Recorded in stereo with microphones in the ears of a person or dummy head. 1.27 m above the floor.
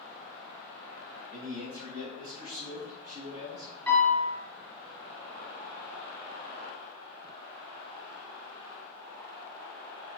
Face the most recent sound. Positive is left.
turn(degrees=10)  # may be behind; listen again after turning